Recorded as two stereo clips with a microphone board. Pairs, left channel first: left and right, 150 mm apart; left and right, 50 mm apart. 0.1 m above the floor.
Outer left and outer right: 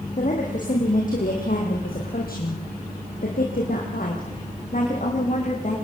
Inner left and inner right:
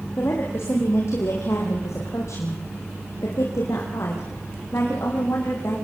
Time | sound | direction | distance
0.2 | a woman speaking | 55° left (ahead or behind) | 6 m